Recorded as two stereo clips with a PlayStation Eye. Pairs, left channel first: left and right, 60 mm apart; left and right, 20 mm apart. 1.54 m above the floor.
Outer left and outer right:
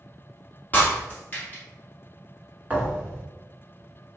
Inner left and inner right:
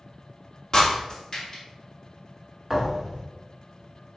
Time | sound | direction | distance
0.7 | breaking glass | 30° left (ahead or behind) | 2 m
2.7 | a thud | 25° right (ahead or behind) | 1.7 m